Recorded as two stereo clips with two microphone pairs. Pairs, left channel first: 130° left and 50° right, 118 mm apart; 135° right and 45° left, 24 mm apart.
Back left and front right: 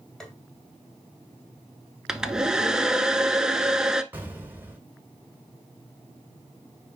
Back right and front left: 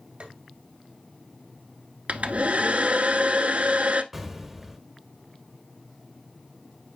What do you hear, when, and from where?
0.2 s tapping: 45° left, 2.5 m
2.1 s a hair dryer: 35° left, 0.7 m
4.1 s an explosion: 10° right, 1.4 m